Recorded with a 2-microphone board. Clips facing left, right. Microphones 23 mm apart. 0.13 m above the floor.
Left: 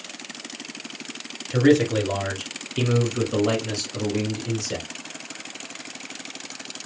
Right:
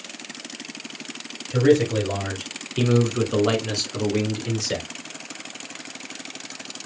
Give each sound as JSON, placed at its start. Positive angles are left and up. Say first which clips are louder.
{"t": 1.5, "sound": "a man speaking", "louder": "even", "side_deg": 25, "distance_m": 2.0}